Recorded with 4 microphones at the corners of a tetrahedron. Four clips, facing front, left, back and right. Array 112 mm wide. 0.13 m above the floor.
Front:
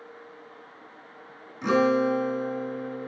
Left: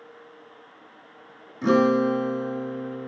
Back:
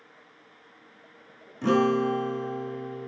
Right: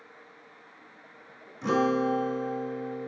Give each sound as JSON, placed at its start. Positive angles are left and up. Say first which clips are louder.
{"t": 1.6, "sound": "a guitar", "louder": "left 6 dB, front 1 dB", "azimuth_deg": 110, "distance_m": 1.7}